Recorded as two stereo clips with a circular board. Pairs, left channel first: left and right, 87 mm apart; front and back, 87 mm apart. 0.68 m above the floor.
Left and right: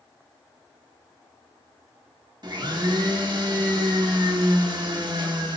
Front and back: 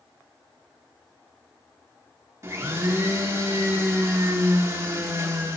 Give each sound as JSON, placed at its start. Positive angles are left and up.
{"t": 2.4, "sound": "a blender", "azimuth_deg": -125, "distance_m": 0.9}